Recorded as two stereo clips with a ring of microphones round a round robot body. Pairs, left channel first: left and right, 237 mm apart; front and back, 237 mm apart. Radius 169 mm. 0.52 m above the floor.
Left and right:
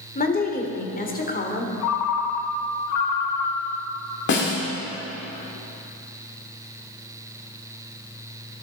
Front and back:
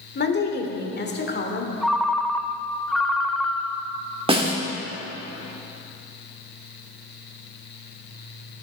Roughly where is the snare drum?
Behind left.